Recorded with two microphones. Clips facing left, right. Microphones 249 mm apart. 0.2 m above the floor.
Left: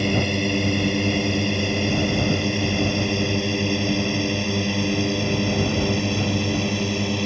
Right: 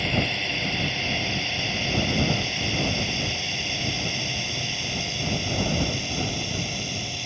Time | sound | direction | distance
0.0 | a drone | 50° left (ahead or behind) | ?